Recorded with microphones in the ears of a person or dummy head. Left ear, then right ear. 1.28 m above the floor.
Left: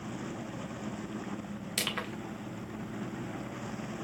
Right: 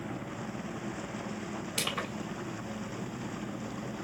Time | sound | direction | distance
1.8 | crushing | 15° left (ahead or behind) | 1.2 m